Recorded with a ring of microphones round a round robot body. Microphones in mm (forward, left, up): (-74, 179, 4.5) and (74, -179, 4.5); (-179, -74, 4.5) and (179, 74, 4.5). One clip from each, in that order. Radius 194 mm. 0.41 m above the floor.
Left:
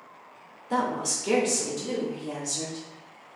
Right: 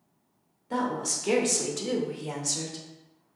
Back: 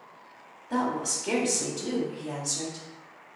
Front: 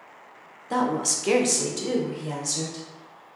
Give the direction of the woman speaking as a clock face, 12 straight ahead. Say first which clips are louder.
Left 2 dB, front 4 dB; 10 o'clock.